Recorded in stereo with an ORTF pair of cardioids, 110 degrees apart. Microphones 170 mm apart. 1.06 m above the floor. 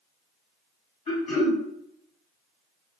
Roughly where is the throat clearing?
Ahead left.